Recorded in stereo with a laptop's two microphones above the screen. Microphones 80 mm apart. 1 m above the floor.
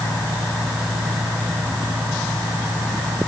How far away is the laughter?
I don't hear laughter.